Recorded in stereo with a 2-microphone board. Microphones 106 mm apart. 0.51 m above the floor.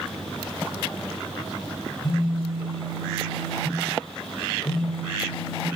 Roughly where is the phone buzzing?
Left.